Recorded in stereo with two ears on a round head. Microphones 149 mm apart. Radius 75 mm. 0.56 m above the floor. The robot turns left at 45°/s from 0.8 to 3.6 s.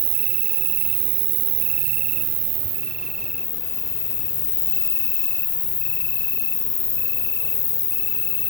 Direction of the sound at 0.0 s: 75° right.